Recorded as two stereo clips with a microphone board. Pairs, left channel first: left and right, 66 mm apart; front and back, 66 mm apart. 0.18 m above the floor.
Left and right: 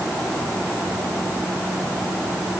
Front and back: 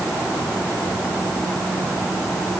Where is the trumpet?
I don't hear a trumpet.